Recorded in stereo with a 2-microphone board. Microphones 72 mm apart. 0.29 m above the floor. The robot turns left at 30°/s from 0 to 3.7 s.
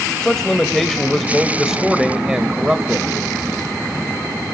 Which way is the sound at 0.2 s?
10° left (ahead or behind).